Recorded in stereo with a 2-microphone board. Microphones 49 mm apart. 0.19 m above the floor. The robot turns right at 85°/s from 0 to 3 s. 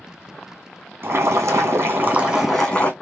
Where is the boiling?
120° right, 1.4 m; by 2.9 s 40° left, 1.4 m.